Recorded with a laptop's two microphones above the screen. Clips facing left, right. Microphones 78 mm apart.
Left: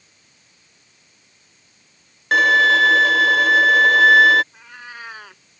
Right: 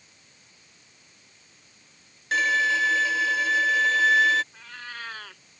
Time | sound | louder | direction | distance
2.3 | a violin | left 9 dB | 60° left (ahead or behind) | ?
4.5 | a cat meowing | left 2 dB | 15° left (ahead or behind) | ?